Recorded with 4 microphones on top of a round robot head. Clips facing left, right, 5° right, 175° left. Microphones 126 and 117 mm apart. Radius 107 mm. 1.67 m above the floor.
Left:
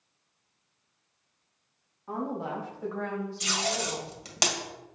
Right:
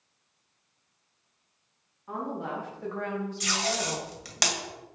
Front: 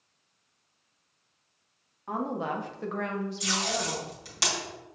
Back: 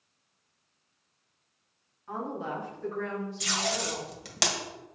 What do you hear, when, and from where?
2.1 s a woman speaking: 30° left, 1.6 m; by 4.1 s 45° right, 1.4 m
3.4 s tape being pulled: 155° left, 1.9 m